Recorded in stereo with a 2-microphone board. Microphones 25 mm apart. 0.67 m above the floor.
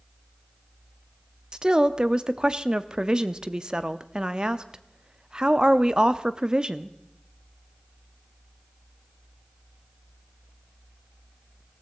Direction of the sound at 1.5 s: 30° right (ahead or behind).